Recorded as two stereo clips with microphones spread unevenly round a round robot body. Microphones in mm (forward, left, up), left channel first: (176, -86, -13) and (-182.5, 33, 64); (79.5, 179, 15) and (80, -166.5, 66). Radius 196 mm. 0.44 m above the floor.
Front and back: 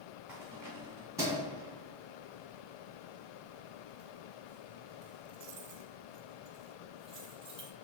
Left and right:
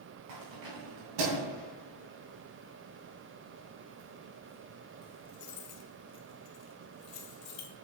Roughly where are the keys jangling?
Right.